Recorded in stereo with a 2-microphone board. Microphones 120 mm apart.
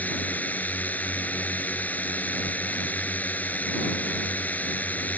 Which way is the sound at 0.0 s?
15° left (ahead or behind).